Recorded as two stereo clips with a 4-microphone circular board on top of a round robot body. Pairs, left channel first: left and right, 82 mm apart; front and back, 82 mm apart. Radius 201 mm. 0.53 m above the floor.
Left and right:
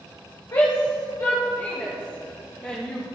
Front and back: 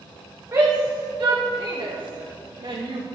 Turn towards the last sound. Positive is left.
turn(degrees=165)